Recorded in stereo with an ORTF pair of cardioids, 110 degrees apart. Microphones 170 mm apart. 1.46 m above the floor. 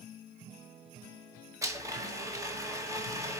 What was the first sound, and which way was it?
A blender, 20° right.